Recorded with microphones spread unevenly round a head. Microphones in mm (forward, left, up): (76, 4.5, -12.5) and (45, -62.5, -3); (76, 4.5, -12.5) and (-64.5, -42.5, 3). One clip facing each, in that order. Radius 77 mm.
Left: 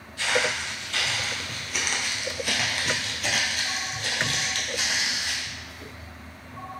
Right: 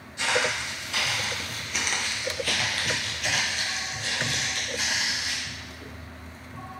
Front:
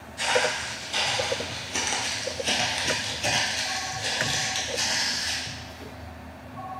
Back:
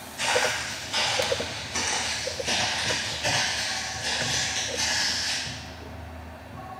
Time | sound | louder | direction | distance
0.2 | footsteps | even, front 1 dB | 60° right | 1.9 m